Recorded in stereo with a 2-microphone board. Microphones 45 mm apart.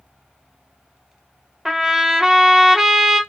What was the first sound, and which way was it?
A trumpet, 5° right (ahead or behind).